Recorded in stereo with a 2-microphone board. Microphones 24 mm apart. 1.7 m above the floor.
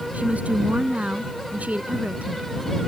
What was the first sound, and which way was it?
A woman speaking, 70° right (ahead or behind).